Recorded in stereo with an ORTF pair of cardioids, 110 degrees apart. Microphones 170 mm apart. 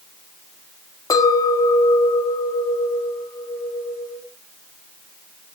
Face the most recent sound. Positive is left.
turn(degrees=20)